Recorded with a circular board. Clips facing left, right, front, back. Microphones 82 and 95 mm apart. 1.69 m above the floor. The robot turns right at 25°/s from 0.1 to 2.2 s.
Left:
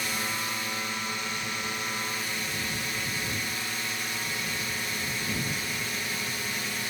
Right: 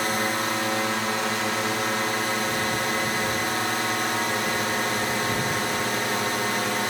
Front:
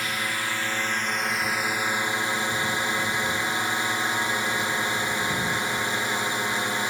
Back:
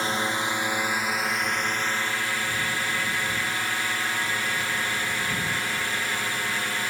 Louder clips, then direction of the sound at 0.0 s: Right 8 dB, back 3 dB; 120° right.